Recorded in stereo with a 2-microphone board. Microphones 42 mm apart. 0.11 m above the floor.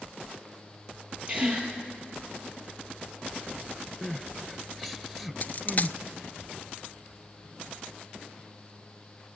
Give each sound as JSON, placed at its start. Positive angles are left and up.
{"t": 1.3, "sound": "a gasp", "side_deg": -25, "distance_m": 6.0}
{"t": 4.0, "sound": "crying", "side_deg": 0, "distance_m": 0.7}
{"t": 5.4, "sound": "a dropped coin", "side_deg": 45, "distance_m": 0.7}